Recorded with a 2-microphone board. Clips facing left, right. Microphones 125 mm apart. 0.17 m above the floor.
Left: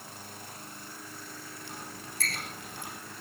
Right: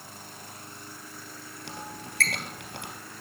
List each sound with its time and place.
1.7 s a squeak: 70° right (ahead or behind), 2.5 m